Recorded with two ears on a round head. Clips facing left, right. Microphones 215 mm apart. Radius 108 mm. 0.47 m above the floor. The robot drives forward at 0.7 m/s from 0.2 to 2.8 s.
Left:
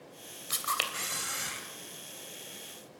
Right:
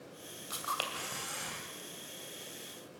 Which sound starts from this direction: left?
A camera shutter, at 0.5 s.